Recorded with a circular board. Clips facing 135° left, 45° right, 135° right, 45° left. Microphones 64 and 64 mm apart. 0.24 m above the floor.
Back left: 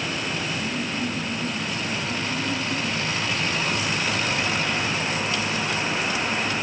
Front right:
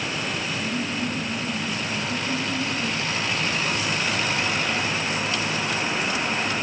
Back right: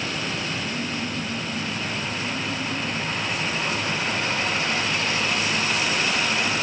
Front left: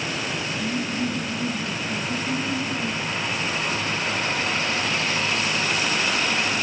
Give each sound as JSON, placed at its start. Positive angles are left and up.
{"t": 0.6, "sound": "laughter", "azimuth_deg": 50, "distance_m": 5.5}